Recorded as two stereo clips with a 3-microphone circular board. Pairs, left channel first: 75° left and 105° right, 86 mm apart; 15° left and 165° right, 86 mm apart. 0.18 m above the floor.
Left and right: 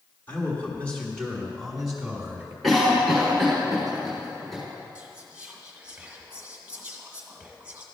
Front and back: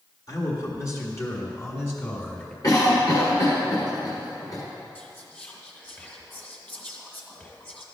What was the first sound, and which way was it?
A man speaking, 20° left.